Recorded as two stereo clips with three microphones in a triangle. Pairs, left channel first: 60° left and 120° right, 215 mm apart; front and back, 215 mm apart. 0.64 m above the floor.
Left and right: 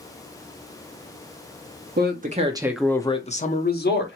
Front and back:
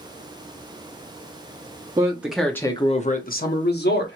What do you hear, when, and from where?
2.0 s a man speaking: 110° right, 0.8 m; by 4.2 s 35° left, 1.2 m